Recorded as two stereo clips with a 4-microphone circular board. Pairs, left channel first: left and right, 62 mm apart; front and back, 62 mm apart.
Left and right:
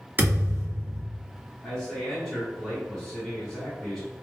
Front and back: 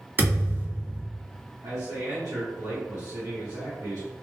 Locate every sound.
0.2 s a thud: 140° right, 1.5 m
1.6 s a man speaking: 170° left, 1.2 m